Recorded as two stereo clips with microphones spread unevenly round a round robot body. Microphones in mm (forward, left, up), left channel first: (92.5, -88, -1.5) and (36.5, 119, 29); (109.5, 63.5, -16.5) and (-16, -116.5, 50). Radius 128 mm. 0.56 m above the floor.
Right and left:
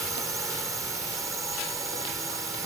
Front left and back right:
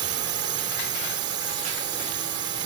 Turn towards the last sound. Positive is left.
turn(degrees=-175)